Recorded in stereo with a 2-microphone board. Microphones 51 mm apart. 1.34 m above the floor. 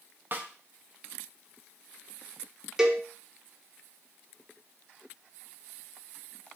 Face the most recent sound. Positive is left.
turn(degrees=-10)  # may be behind; listen again after turning